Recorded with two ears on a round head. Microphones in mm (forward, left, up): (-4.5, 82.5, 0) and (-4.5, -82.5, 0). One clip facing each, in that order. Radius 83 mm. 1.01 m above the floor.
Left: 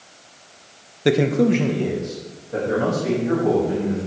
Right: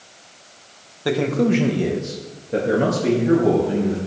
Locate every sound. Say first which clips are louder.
1.1 s a man speaking: left 2 dB; 30° left (ahead or behind), 0.8 m; by 4.0 s 40° right (ahead or behind), 3 m